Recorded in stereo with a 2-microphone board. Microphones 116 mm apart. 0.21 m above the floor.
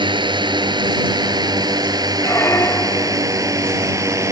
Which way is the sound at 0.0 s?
40° right (ahead or behind).